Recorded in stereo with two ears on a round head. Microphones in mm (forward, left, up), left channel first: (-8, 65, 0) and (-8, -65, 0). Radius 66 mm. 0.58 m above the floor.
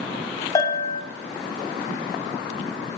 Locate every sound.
0.6 s a bell: 25° left (ahead or behind), 2 m